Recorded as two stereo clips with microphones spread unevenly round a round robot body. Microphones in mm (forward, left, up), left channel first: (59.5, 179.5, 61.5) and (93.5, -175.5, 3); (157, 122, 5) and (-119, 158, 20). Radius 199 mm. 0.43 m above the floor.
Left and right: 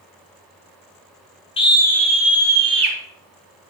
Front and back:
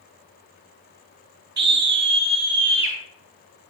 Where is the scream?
175° left, 1.4 m; by 3.0 s 140° right, 1.6 m.